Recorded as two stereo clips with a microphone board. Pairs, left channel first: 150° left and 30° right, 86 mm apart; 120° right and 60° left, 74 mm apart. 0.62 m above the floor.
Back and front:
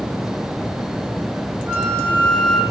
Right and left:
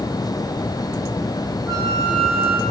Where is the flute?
30° left, 2.5 m.